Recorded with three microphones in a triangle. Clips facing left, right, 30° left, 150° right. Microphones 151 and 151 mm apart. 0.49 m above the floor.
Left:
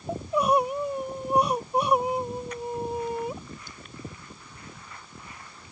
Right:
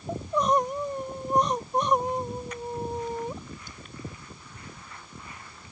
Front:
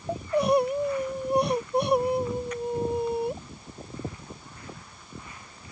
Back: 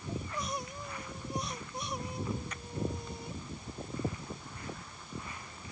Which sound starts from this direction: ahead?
Crying, at 0.1 s.